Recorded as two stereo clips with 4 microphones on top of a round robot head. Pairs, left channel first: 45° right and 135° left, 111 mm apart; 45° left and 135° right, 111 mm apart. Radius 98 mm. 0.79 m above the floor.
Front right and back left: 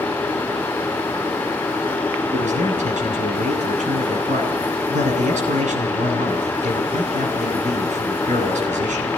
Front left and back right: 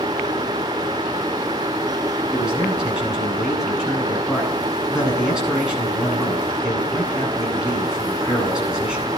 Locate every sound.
2.3 s a man speaking: 140° left, 9.5 m